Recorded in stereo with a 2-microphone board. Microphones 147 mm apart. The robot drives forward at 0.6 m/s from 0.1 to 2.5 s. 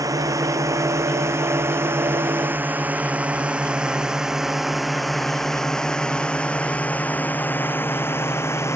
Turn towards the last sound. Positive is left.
turn(degrees=20)  # may be behind; listen again after turning